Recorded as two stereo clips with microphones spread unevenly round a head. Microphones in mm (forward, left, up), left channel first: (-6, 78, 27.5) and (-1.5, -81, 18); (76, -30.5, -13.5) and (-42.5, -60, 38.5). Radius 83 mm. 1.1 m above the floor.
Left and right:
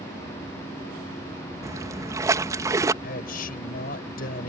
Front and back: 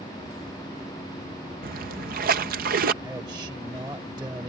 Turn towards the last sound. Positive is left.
turn(degrees=125)